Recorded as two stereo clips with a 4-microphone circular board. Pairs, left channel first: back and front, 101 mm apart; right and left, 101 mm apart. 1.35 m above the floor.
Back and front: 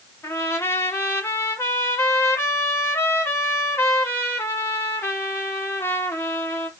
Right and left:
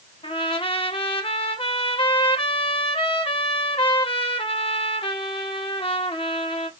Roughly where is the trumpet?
Behind right.